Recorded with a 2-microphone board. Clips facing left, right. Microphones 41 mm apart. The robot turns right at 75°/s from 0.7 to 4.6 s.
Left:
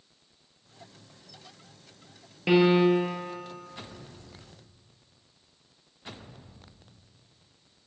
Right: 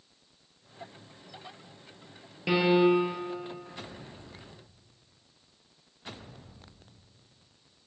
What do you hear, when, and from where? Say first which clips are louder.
2.5 s a piano: left 2 dB; 165° left, 1.3 m; by 3.1 s 145° right, 1.3 m